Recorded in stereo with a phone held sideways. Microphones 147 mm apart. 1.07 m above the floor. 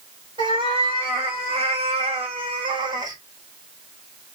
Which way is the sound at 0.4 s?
35° right (ahead or behind).